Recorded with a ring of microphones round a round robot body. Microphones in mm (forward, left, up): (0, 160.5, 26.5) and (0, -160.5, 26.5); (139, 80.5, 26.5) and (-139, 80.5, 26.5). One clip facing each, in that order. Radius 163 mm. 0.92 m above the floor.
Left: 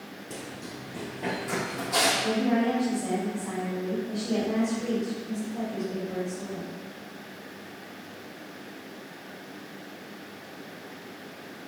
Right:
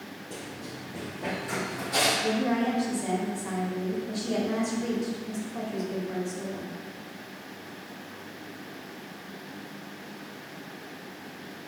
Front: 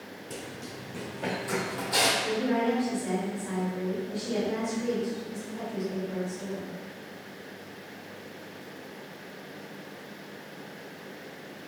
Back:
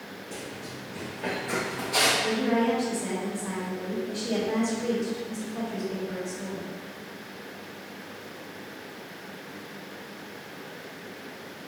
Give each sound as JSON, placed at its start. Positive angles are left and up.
{"t": 0.3, "sound": "running footsteps", "azimuth_deg": 25, "distance_m": 1.3}
{"t": 2.2, "sound": "a woman speaking", "azimuth_deg": -135, "distance_m": 1.3}